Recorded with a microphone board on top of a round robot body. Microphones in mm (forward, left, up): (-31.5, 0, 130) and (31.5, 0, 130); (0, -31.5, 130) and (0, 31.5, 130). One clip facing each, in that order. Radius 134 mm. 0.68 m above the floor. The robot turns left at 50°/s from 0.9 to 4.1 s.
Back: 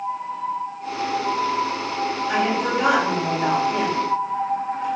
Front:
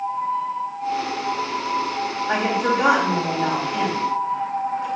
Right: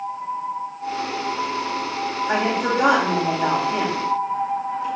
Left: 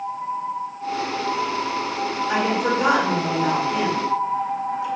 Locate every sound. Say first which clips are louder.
2.3 s a woman speaking: front 2 dB, even; 50° right, 4.5 m; by 4.9 s 140° right, 4.5 m